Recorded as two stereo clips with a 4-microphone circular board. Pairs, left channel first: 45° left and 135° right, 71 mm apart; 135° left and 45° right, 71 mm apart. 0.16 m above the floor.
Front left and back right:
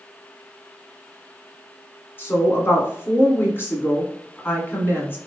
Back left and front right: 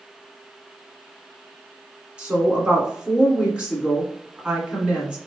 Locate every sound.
2.2 s a woman speaking: 20° left, 1.9 m